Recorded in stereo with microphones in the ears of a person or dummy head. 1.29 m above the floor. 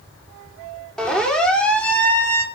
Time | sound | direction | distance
1.0 | a siren | 5° left (ahead or behind) | 5 m